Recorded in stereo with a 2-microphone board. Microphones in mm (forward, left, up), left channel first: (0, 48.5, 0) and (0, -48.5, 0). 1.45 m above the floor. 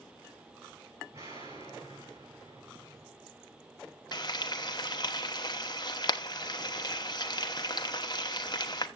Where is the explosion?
35° right (ahead or behind), 7 m.